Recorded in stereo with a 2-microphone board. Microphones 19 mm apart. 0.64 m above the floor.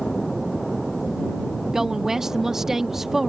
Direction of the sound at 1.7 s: 30° right (ahead or behind).